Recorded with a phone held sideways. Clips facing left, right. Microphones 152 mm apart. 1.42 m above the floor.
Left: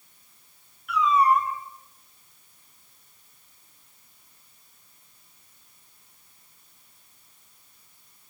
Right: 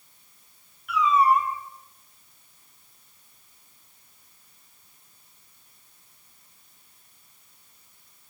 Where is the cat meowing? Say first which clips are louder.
Even; centre (ahead or behind), 4.5 m.